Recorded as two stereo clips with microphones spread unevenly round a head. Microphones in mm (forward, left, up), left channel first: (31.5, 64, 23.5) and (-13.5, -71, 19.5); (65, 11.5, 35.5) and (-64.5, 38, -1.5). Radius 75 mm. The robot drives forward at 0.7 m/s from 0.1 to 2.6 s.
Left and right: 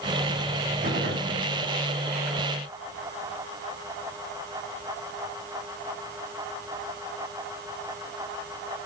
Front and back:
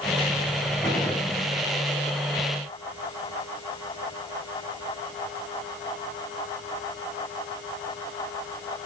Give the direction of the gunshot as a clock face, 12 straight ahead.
3 o'clock.